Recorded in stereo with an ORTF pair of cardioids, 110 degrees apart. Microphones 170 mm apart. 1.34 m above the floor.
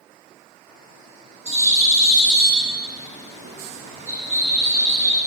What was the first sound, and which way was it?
A bird, 40° right.